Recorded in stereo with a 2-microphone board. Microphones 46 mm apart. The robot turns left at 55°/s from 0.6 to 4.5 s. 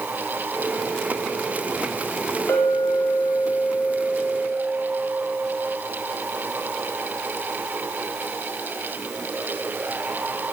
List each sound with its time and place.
2.5 s a clink: 110° left, 1.2 m; by 5.7 s straight ahead, 1.2 m